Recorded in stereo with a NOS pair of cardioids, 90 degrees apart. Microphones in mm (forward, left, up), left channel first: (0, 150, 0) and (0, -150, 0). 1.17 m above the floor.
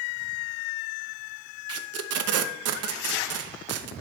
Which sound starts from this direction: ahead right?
Tape being pulled, at 1.7 s.